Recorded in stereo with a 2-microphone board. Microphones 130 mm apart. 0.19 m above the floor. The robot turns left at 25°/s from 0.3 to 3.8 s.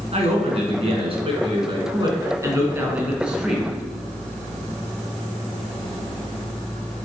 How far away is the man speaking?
About 1.9 m.